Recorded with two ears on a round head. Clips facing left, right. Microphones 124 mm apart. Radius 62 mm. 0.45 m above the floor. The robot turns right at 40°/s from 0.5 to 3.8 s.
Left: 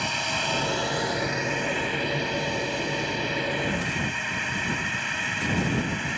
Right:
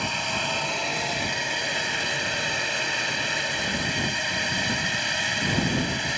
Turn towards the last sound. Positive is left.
turn(degrees=-45)